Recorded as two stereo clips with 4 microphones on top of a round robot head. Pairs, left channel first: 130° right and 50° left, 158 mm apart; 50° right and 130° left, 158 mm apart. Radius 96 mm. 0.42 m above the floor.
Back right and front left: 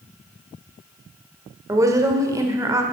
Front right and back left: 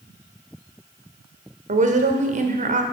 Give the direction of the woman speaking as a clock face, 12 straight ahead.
8 o'clock.